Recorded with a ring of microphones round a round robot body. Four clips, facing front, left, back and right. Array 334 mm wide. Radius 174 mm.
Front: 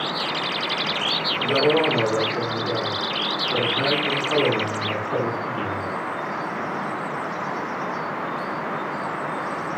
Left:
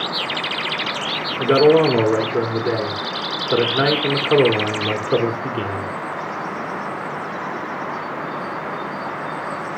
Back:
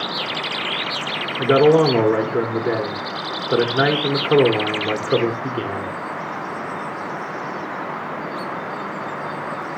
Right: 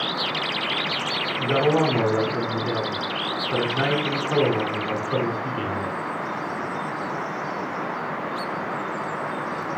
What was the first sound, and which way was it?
A man speaking, 140° left.